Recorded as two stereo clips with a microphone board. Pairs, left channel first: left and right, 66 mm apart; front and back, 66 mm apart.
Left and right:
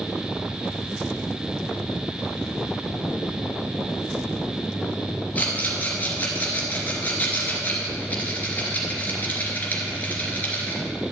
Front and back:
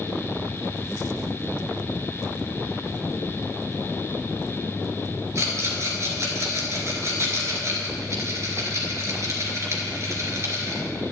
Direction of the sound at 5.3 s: 150° left.